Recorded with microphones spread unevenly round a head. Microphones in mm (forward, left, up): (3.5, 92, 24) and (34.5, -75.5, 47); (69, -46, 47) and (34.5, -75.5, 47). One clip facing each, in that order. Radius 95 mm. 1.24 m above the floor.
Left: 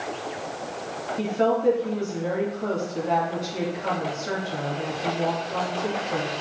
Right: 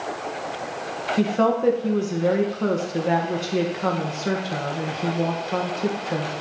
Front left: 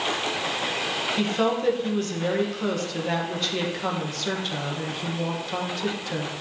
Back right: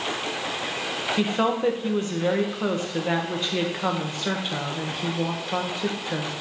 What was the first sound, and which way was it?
A woman speaking, 70° right.